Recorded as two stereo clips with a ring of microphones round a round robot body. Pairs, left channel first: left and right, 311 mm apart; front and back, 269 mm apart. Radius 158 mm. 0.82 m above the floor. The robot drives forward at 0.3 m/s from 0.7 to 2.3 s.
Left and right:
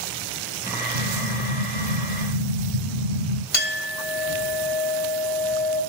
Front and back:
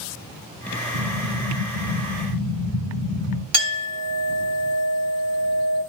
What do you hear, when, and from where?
0.9 s an explosion: 65° right, 1.1 m; by 3.4 s 95° right, 1.0 m
3.5 s a clink: 150° left, 1.9 m